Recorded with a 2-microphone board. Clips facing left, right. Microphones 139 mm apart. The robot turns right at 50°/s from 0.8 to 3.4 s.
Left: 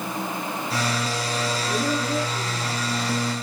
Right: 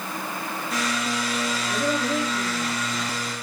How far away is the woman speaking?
About 2 m.